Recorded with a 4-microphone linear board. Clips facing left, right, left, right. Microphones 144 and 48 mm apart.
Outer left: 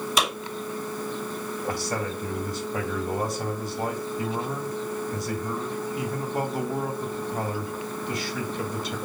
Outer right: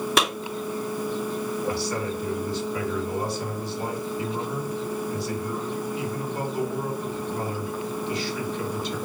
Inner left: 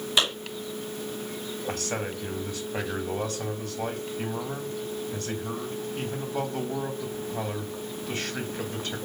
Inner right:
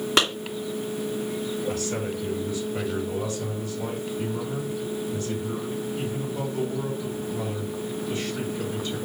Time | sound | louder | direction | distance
0.2 | a clap | outer right 3 dB, inner right 3 dB | 65° right (ahead or behind) | 2.5 m
1.7 | a man speaking | outer right 2 dB, inner right 3 dB | 45° left (ahead or behind) | 1.7 m